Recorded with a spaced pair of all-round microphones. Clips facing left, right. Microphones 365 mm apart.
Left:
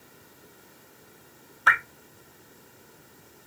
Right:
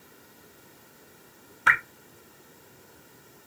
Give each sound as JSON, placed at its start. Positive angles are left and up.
{"t": 1.7, "sound": "dripping", "side_deg": -40, "distance_m": 0.7}